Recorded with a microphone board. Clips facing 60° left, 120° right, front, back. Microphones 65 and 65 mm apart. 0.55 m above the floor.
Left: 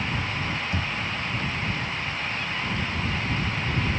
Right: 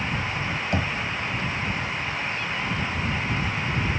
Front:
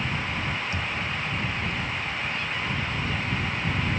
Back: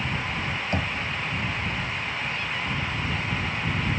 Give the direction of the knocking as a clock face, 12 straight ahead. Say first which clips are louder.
Right 3 dB, back 3 dB; 5 o'clock.